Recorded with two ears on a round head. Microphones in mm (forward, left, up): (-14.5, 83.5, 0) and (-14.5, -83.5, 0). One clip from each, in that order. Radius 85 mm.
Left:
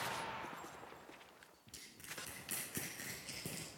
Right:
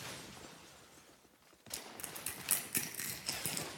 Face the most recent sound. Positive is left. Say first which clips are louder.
# right 3 dB
turn(degrees=-40)  # may be behind; listen again after turning